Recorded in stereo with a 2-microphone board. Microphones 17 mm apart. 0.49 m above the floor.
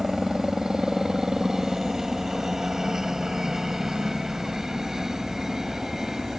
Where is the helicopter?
25° right (ahead or behind).